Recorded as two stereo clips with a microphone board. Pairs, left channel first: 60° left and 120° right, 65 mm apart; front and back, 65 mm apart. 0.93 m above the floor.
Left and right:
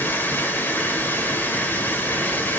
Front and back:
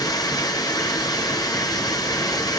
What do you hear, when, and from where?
0.0 s running water: straight ahead, 1.7 m